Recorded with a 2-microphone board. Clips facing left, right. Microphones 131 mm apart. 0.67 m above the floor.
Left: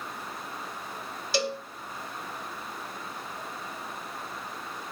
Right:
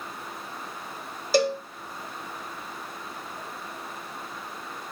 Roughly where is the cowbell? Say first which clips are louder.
Right 7 dB; right.